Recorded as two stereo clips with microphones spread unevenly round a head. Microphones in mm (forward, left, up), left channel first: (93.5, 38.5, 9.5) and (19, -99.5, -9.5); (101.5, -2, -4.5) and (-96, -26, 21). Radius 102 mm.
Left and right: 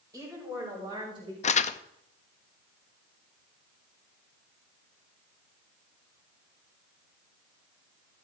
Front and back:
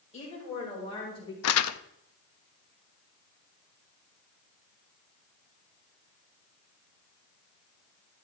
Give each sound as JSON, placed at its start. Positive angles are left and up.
{"t": 0.1, "sound": "a woman speaking", "azimuth_deg": -50, "distance_m": 5.0}
{"t": 1.4, "sound": "crumpling", "azimuth_deg": 25, "distance_m": 0.6}